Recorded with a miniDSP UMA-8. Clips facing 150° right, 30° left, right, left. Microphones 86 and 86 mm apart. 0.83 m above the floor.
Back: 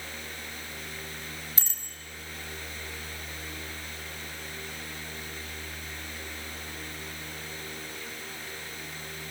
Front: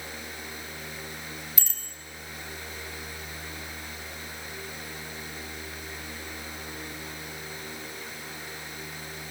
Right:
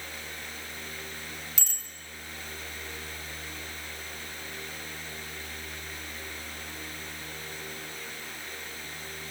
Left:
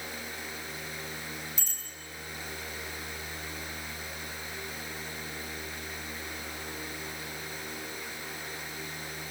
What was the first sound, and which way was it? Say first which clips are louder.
A bicycle bell: even, right 1 dB; 95° right.